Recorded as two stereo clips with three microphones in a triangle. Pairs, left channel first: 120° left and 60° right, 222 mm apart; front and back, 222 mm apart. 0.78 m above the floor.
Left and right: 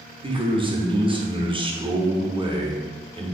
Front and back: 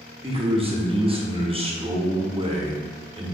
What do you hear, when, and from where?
0.2 s a man speaking: 125° right, 0.6 m